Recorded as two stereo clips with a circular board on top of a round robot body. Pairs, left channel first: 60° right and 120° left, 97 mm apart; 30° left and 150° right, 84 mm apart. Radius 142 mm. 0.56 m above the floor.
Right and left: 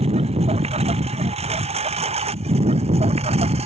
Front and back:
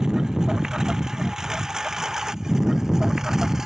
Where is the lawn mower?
125° left.